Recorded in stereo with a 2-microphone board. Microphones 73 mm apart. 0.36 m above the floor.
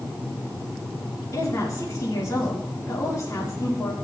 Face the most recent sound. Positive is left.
turn(degrees=45)  # may be behind; listen again after turning